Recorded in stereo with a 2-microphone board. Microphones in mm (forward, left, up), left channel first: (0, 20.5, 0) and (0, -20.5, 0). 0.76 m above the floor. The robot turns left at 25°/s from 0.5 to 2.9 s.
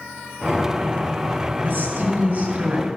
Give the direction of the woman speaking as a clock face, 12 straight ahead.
4 o'clock.